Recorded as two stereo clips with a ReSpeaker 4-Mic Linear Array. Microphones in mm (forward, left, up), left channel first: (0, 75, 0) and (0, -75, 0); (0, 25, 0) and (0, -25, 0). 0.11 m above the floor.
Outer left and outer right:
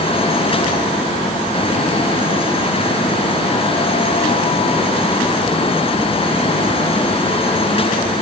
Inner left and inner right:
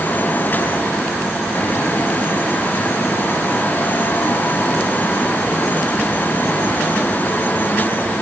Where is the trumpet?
I don't hear a trumpet.